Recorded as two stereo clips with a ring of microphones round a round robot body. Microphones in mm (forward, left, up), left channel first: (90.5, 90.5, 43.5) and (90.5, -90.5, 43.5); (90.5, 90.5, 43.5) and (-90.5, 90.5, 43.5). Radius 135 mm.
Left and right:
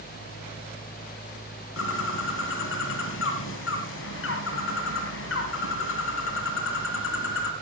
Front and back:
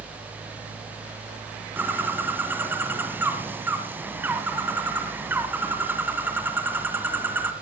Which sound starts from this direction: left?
A bird, at 1.8 s.